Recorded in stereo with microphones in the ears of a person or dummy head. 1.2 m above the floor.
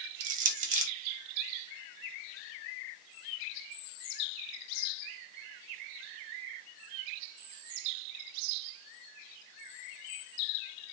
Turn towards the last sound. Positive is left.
turn(degrees=-40)  # may be behind; listen again after turning